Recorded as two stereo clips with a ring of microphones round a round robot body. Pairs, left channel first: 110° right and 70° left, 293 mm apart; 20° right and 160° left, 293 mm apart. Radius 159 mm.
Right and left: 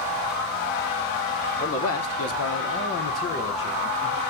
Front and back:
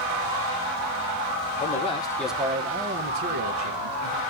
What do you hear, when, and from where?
1.6 s a man speaking: 80° right, 1.4 m; by 4.2 s 170° left, 2 m